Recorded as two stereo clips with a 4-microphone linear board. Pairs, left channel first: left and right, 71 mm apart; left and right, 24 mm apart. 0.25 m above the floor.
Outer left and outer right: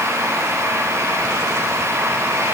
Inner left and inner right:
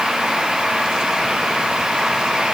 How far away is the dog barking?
No dog barking in this recording.